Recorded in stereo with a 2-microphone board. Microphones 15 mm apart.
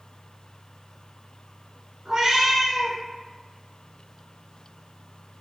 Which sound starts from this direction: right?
A cat meowing, at 2.0 s.